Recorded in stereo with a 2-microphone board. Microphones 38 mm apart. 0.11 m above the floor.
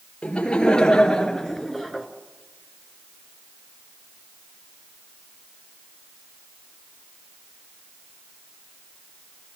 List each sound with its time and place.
0.2 s laughter: 25° left (ahead or behind), 2.5 m; by 2.1 s 5° right (ahead or behind), 1.7 m